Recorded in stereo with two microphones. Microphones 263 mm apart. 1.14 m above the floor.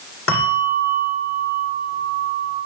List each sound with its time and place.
0.3 s a bell: 55° left (ahead or behind), 8 m